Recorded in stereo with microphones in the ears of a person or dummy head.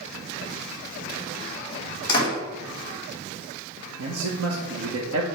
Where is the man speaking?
85° right, 1.4 m.